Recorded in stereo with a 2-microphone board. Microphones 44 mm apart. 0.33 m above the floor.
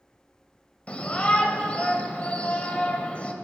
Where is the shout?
25° left (ahead or behind), 1.8 m.